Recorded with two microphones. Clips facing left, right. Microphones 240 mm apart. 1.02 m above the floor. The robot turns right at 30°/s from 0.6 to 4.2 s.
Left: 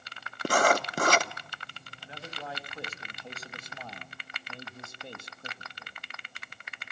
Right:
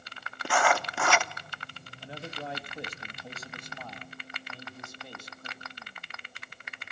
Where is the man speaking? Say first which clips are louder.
Right 3 dB; 40° right, 1.9 m; by 6.0 s 25° left, 1.9 m.